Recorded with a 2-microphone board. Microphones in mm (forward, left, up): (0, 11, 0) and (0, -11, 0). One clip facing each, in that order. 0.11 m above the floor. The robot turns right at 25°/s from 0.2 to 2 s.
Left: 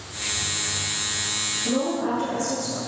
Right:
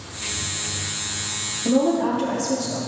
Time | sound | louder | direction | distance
1.6 | a woman speaking | right 7 dB | 35° right (ahead or behind) | 3 m